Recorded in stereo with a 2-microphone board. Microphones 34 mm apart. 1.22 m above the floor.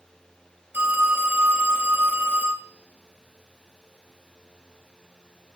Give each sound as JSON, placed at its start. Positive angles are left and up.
{"t": 0.7, "sound": "a phone ringing", "side_deg": -75, "distance_m": 5.0}